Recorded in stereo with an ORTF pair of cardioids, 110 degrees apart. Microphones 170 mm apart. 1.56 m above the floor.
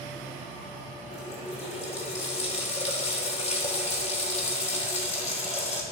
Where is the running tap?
40° left, 3 m.